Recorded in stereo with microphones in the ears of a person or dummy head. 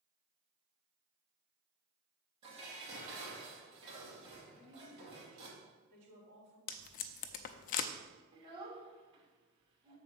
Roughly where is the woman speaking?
Right.